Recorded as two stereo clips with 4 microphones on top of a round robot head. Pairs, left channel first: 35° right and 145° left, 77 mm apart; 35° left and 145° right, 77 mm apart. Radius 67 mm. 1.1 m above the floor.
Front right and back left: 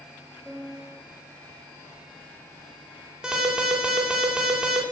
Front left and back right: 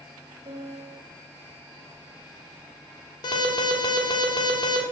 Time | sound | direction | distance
0.5 | a piano | 135° right | 3 m
3.2 | an alarm | 65° left | 3 m